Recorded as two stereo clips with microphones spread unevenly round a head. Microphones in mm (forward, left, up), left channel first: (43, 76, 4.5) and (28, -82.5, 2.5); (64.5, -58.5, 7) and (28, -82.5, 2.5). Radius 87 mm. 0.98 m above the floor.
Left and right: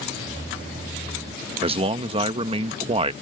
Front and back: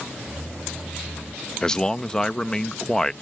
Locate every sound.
1.6 s a man speaking: 45° right